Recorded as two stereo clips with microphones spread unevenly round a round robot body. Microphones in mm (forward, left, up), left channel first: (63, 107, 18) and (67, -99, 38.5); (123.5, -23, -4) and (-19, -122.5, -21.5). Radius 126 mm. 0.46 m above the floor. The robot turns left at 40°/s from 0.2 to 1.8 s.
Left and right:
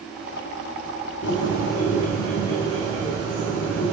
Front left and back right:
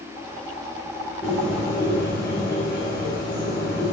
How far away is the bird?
About 6 m.